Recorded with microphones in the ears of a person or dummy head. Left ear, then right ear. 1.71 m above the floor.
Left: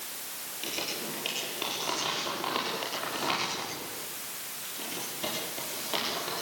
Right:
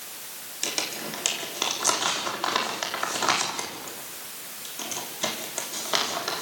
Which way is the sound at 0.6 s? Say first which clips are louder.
Right 5 dB; 55° right (ahead or behind).